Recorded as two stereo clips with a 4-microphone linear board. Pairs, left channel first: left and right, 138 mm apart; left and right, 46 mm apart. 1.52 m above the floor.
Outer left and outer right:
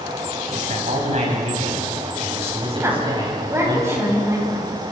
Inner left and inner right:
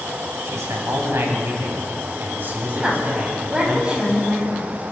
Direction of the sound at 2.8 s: 20° right (ahead or behind).